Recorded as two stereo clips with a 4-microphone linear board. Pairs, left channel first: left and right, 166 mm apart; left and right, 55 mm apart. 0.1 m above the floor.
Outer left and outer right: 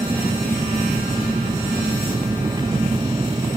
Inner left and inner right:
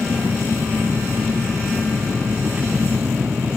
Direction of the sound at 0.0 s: 25° right (ahead or behind).